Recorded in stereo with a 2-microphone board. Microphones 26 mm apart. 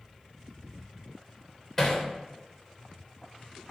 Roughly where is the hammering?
Centre.